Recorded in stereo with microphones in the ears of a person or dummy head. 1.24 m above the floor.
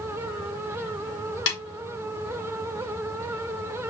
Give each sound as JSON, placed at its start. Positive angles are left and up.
{"t": 1.5, "sound": "a snare drum", "side_deg": 70, "distance_m": 1.7}